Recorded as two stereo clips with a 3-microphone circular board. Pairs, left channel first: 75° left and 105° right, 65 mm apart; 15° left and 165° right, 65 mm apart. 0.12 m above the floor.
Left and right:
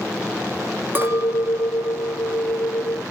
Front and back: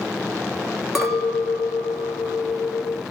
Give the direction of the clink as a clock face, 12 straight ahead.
3 o'clock.